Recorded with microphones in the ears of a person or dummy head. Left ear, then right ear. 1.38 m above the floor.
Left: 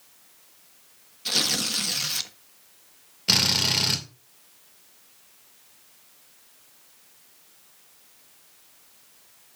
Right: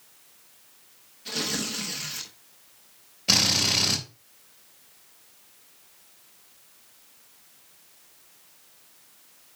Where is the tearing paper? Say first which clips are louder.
Left 6 dB; 45° left (ahead or behind), 1.1 m.